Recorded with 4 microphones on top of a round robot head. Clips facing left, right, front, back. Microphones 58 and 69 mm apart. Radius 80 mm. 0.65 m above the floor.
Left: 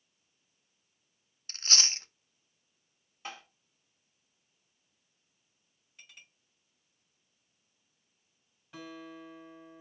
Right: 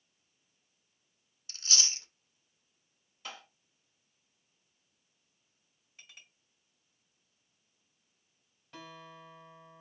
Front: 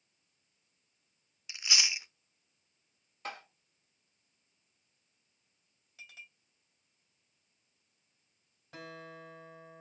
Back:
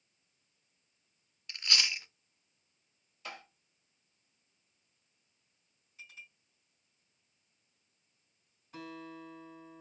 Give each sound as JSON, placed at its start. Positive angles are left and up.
{"t": 1.5, "sound": "chewing", "azimuth_deg": 80, "distance_m": 0.6}
{"t": 3.2, "sound": "tapping", "azimuth_deg": 30, "distance_m": 2.5}
{"t": 6.0, "sound": "a clink", "azimuth_deg": 0, "distance_m": 2.5}
{"t": 8.7, "sound": "a guitar", "azimuth_deg": 5, "distance_m": 3.0}